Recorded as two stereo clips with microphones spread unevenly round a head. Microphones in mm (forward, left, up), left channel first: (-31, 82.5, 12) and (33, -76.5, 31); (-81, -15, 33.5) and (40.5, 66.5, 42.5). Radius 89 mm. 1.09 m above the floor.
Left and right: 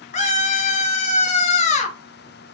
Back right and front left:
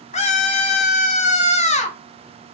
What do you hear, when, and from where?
0.1 s a scream: 165° left, 0.6 m